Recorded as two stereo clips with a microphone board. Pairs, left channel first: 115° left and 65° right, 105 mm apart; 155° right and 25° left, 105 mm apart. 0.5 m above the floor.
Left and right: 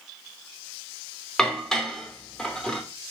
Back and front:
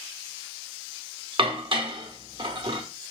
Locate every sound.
1.4 s dishes clattering: 30° left, 0.8 m